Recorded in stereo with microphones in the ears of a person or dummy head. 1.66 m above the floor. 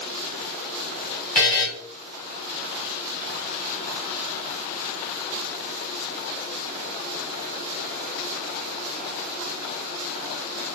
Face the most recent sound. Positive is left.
turn(degrees=10)  # may be behind; listen again after turning